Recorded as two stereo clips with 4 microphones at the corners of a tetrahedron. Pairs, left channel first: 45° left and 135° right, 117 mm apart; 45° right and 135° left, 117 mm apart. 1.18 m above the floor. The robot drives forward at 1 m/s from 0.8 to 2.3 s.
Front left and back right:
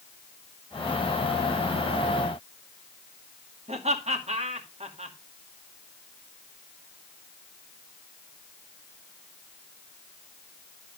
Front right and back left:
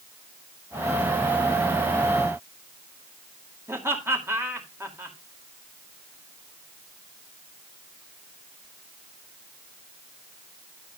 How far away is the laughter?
About 2.5 m.